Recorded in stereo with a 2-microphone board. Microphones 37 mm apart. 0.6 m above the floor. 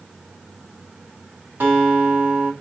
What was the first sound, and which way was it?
A guitar, 60° right (ahead or behind).